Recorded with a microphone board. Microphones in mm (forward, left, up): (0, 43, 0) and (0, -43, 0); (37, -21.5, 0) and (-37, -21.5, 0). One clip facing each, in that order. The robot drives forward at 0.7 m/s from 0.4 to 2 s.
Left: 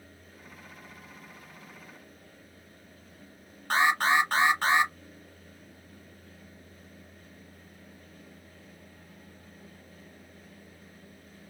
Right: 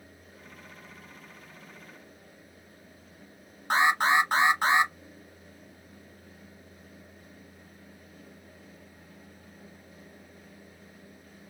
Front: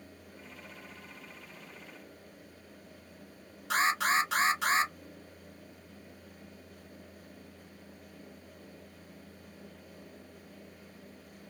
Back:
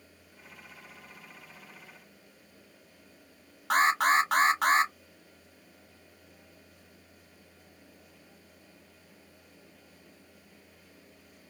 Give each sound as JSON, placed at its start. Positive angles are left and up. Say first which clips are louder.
{"t": 3.7, "sound": "an alarm", "louder": "right 1 dB, back 4 dB", "azimuth_deg": -160, "distance_m": 1.1}